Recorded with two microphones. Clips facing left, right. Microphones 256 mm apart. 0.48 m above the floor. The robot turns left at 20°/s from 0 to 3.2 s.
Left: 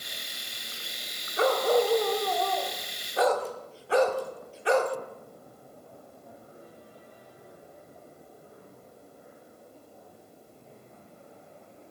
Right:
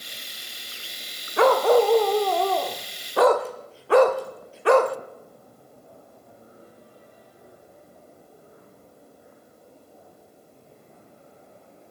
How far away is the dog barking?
About 0.7 m.